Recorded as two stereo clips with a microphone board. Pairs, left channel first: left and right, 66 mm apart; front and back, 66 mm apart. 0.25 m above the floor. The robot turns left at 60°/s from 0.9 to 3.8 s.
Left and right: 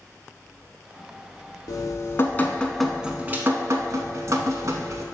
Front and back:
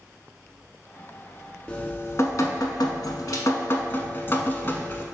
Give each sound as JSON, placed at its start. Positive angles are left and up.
{"t": 1.7, "sound": "dripping", "azimuth_deg": 70, "distance_m": 0.5}